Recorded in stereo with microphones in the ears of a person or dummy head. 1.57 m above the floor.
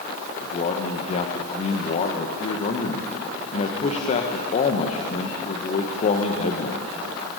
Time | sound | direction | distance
0.4 | a man speaking | 40° left (ahead or behind) | 1.6 m